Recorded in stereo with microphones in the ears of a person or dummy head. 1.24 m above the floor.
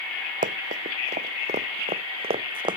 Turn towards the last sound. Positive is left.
turn(degrees=-25)  # may be behind; listen again after turning